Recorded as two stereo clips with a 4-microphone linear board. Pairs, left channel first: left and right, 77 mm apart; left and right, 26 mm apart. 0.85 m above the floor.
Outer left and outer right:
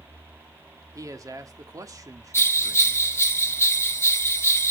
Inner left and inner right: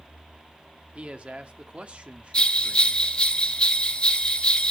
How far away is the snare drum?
I don't hear a snare drum.